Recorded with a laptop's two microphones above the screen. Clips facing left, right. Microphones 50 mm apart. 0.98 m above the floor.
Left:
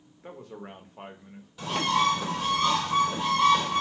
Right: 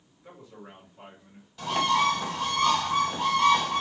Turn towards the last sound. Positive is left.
turn(degrees=5)  # may be behind; listen again after turning